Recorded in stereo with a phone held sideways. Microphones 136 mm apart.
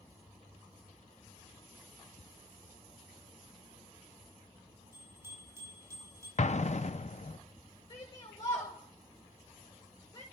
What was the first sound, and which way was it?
A bicycle bell, 20° right (ahead or behind).